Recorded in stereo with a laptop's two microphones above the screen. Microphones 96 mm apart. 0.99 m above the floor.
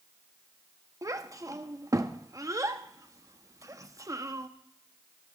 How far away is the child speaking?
About 0.9 m.